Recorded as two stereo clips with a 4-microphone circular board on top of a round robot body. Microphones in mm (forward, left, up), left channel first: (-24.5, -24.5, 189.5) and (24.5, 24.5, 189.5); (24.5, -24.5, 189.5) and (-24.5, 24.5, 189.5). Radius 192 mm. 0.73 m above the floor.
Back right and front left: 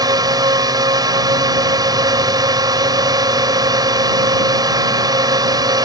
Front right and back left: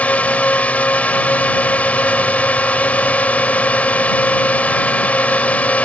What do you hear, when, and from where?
0.0 s a drone: 25° left